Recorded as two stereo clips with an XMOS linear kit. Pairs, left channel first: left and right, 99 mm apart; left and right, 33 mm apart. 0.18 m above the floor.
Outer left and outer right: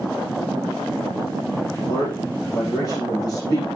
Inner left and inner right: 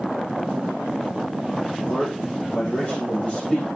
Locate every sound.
1.7 s a man speaking: 45° left (ahead or behind), 8 m